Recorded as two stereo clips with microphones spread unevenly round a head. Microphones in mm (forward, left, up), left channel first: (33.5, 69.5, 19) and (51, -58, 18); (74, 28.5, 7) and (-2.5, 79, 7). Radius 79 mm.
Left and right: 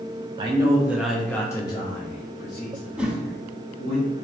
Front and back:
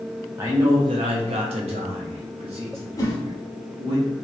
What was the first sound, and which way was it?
A man speaking, 140° right.